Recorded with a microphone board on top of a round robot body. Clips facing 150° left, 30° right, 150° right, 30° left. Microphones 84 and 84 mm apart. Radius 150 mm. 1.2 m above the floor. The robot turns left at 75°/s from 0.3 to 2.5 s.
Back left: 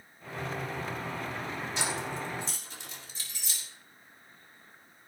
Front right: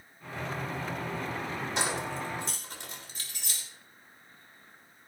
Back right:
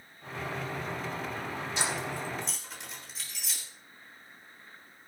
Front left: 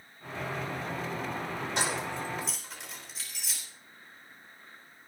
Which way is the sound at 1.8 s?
5° right.